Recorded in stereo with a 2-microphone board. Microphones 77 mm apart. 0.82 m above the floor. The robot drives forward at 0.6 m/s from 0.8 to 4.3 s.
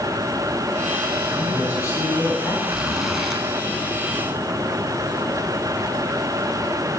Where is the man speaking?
45° left (ahead or behind), 5 m; by 2.5 s 40° left (ahead or behind), 5.5 m.